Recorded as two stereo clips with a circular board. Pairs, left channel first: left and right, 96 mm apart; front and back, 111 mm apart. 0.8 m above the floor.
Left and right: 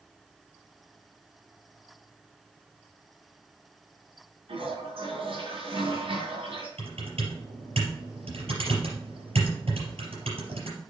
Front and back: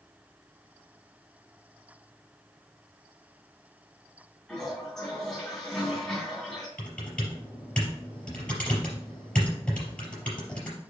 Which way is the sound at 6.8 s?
85° right.